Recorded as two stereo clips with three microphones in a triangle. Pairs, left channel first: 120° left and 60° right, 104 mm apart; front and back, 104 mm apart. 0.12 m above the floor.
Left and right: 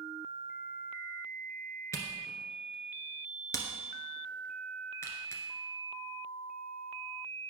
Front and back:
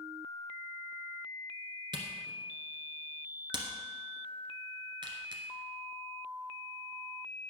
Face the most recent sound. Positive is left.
turn(degrees=170)